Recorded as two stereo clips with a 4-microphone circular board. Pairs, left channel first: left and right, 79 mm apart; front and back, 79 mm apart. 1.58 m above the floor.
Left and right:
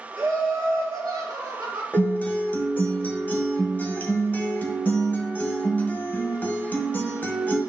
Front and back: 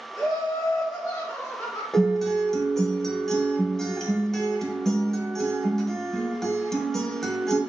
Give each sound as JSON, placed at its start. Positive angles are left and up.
{"t": 0.2, "sound": "laughter", "azimuth_deg": -40, "distance_m": 2.0}
{"t": 1.9, "sound": "a guitar", "azimuth_deg": 75, "distance_m": 1.5}